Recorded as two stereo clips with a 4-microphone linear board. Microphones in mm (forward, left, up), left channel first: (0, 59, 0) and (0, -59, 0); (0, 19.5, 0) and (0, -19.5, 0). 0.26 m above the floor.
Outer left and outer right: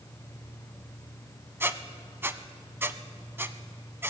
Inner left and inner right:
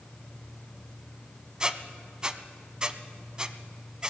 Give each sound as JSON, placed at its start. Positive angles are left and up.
{"t": 1.6, "sound": "a squeak", "side_deg": -20, "distance_m": 0.5}